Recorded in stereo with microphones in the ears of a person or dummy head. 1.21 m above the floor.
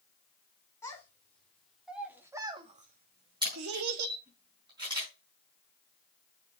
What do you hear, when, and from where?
0.8 s a child speaking: 15° left (ahead or behind), 3 m; by 4.2 s 85° right, 2 m
3.4 s a camera shutter: 20° right (ahead or behind), 5 m